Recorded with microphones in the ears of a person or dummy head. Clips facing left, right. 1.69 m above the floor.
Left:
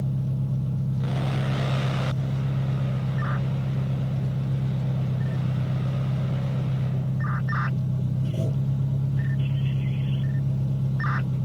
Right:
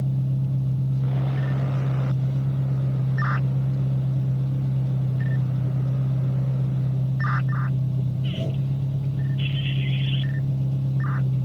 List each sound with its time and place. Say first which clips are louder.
0.0 s an engine running: right 2 dB; 30° left (ahead or behind), 9.5 m